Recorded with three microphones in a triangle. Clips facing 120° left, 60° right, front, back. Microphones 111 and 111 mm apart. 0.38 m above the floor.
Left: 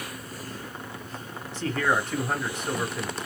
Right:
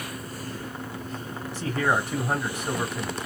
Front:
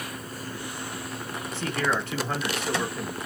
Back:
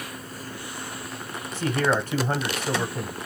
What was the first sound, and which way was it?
A man speaking, 135° right.